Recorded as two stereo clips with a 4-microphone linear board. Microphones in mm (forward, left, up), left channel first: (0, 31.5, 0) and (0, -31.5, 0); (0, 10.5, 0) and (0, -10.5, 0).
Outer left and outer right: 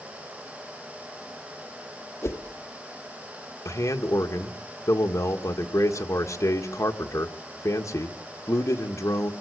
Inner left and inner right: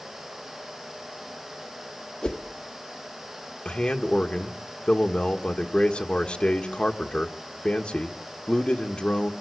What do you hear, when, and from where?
2.2 s a whoosh: 50° left (ahead or behind), 1.4 m
3.6 s a man speaking: 60° left (ahead or behind), 1.7 m